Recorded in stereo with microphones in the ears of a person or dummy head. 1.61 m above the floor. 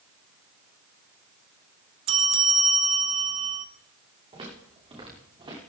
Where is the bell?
35° right (ahead or behind), 1.4 m.